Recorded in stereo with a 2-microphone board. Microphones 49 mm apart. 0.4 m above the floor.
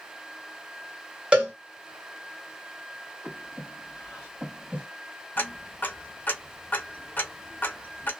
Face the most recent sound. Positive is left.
turn(degrees=40)  # may be behind; listen again after turning